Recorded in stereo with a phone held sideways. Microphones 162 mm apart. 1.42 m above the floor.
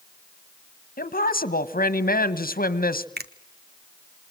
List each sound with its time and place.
1.0 s a woman speaking: 65° left (ahead or behind), 1.4 m
3.2 s a finger snap: 85° right, 1.2 m